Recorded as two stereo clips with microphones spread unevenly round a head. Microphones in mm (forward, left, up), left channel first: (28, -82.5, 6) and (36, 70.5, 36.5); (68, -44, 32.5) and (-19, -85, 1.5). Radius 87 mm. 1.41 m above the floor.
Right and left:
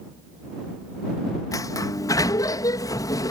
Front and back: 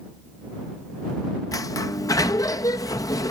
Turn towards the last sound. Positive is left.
turn(degrees=-20)